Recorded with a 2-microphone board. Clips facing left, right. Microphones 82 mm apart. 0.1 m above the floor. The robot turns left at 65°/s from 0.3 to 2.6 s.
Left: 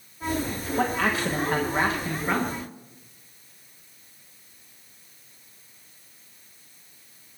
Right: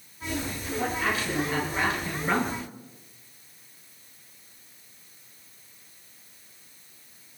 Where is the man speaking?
110° left, 9.5 m; by 2.6 s 10° right, 9.5 m.